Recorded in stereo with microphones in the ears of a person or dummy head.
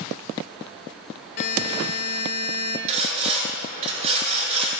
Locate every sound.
1.4 s a buzzer: 55° left (ahead or behind), 1.3 m
2.9 s sawing: 40° right (ahead or behind), 6.5 m